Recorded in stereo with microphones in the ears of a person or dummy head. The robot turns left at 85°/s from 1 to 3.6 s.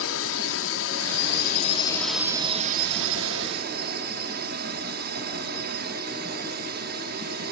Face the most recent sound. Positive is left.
turn(degrees=-135)